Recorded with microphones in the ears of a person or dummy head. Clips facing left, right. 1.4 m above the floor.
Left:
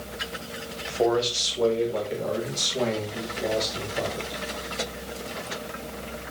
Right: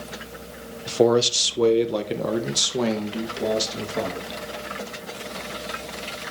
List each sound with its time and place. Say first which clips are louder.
0.9 s a man speaking: right 5 dB; 45° right (ahead or behind), 1.0 m; by 4.4 s 65° right (ahead or behind), 2.5 m